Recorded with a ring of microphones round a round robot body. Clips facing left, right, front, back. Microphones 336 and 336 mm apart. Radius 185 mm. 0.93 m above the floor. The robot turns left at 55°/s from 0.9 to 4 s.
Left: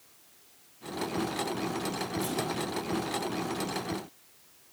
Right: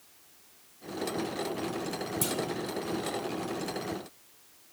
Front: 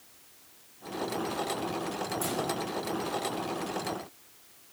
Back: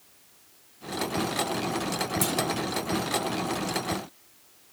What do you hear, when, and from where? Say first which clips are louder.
2.2 s a clunk: left 1 dB, back 4 dB; 140° right, 2.5 m; by 2.4 s 150° right, 2.5 m